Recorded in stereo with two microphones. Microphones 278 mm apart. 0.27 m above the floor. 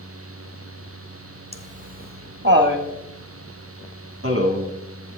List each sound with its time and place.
1.5 s laughter: 20° right (ahead or behind), 1.0 m; by 4.7 s 50° right (ahead or behind), 2 m